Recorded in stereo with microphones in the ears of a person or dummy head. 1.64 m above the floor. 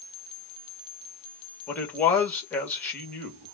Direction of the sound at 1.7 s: 10° left (ahead or behind).